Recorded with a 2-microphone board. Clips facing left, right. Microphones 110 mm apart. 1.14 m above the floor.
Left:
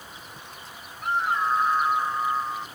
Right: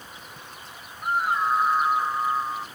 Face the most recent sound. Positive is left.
turn(degrees=-5)  # may be behind; listen again after turning